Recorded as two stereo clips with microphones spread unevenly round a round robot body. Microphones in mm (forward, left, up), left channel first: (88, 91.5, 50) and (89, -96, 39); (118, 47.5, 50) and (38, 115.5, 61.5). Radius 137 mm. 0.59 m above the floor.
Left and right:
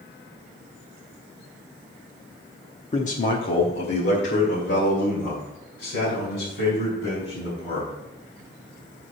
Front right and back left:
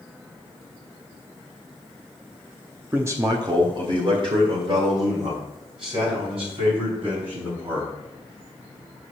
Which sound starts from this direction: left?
A man speaking, at 2.9 s.